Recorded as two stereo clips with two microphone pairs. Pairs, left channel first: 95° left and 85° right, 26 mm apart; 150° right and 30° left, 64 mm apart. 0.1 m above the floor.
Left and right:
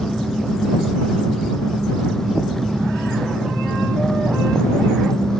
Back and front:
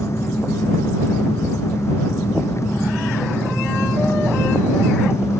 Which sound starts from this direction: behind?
An engine running, at 0.0 s.